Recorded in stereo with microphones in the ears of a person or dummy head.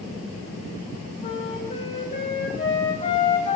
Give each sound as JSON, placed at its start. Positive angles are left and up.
{"t": 1.2, "sound": "a flute", "side_deg": 35, "distance_m": 3.5}